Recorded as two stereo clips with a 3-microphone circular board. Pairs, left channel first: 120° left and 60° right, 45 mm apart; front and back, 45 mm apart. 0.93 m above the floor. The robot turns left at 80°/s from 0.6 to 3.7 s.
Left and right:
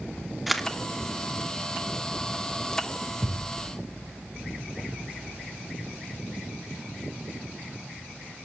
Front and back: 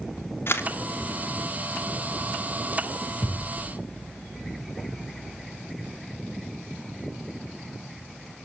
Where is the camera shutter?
30° left, 1.8 m; by 0.7 s 20° left, 1.8 m.